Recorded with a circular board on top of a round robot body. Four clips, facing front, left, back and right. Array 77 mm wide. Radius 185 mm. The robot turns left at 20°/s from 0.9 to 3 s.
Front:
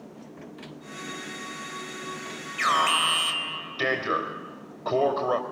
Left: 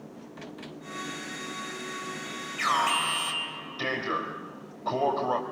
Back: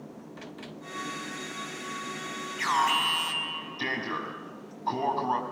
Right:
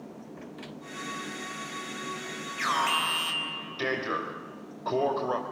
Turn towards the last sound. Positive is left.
turn(degrees=-10)